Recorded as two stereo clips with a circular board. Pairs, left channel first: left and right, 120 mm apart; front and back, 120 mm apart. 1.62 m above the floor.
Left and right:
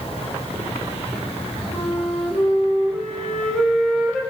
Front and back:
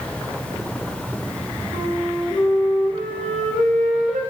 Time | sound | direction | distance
1.7 | a flute | 175° left | 0.8 m